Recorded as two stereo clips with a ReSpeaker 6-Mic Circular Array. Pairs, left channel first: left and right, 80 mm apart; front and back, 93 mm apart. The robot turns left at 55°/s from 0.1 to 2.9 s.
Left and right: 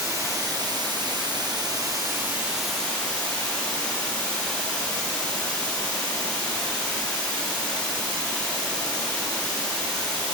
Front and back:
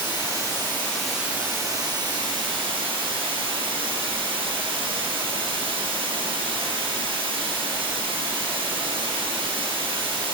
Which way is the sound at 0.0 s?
35° right.